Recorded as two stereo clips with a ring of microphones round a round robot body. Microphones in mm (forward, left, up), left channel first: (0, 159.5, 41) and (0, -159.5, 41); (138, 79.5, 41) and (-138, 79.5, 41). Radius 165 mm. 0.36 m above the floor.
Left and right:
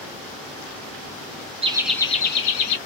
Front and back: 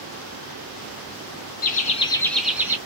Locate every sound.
1.6 s laughter: 30° right, 1.1 m; by 2.8 s 100° left, 1.4 m